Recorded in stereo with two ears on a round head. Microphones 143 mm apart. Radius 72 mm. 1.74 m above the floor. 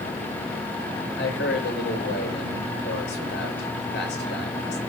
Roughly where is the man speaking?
Left.